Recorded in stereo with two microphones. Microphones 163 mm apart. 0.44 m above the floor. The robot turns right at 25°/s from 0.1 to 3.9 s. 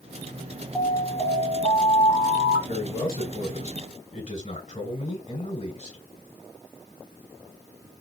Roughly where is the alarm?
Ahead.